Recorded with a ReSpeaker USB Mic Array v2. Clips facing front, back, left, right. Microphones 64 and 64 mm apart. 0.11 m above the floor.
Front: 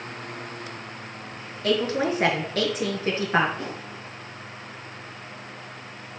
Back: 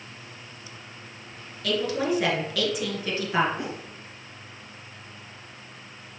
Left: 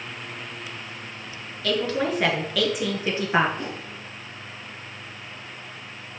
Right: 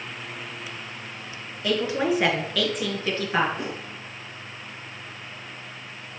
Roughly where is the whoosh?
Behind right.